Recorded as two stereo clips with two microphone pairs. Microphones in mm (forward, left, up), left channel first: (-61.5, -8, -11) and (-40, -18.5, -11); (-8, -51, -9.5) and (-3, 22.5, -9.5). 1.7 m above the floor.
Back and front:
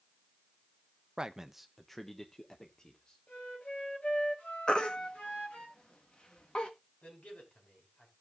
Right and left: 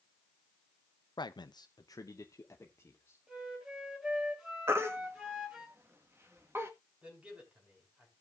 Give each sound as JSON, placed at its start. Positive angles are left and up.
{"t": 1.2, "sound": "a man speaking", "azimuth_deg": -85, "distance_m": 0.6}
{"t": 3.3, "sound": "a flute", "azimuth_deg": 165, "distance_m": 3.5}
{"t": 4.7, "sound": "a baby crying", "azimuth_deg": 130, "distance_m": 1.4}
{"t": 7.0, "sound": "a man speaking", "azimuth_deg": 160, "distance_m": 5.0}